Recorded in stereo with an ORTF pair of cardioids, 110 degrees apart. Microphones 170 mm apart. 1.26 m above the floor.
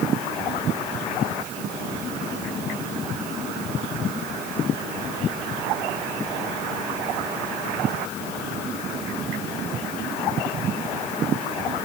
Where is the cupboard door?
I don't hear a cupboard door.